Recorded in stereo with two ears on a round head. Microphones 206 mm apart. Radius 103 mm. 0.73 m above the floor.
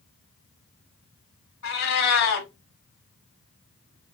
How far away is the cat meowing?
About 1.3 m.